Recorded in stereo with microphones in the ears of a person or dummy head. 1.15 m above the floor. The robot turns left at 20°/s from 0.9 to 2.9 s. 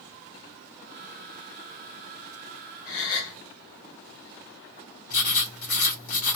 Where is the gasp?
50° left (ahead or behind), 5.5 m.